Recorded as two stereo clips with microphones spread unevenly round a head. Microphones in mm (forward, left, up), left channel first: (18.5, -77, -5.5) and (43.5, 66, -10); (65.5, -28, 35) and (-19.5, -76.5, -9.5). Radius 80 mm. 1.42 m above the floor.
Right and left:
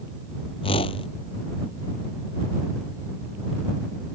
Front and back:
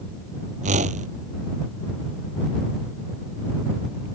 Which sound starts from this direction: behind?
A whoosh, at 0.6 s.